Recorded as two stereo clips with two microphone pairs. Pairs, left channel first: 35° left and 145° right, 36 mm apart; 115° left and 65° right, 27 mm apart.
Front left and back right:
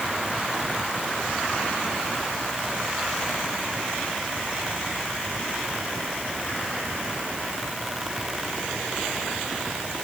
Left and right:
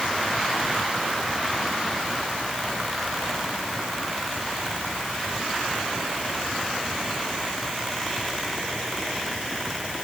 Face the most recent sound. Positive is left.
No sound to turn to.